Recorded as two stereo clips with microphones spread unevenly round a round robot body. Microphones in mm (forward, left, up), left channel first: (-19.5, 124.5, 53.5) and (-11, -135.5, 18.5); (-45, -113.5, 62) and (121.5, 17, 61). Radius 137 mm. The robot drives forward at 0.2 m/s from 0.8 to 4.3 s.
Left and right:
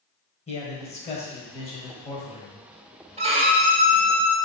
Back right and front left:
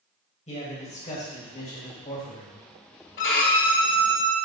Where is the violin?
150° right, 1.6 m.